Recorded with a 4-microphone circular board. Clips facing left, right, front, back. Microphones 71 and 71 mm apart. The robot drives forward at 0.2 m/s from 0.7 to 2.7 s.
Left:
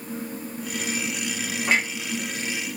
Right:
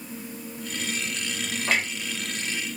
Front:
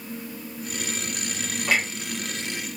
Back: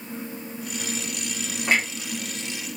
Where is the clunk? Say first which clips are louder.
Left 3 dB, back 1 dB; 150° left, 1.5 m.